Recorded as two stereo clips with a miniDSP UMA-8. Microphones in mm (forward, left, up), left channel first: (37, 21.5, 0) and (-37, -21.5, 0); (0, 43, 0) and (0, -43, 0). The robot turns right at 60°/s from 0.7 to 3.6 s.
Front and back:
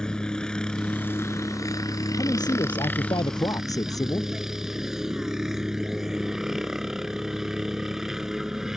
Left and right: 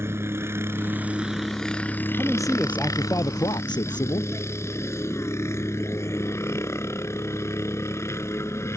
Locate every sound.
0.0 s a helicopter: 45° right; by 8.8 s 125° left
2.2 s a man speaking: 15° right; by 4.3 s 70° left